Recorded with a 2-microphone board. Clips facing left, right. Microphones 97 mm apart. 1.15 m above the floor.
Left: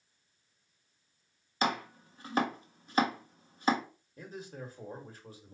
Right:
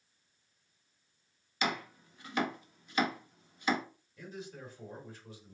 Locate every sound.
1.6 s chopping: 35° left (ahead or behind), 0.9 m
4.2 s a man speaking: 35° left (ahead or behind), 1.6 m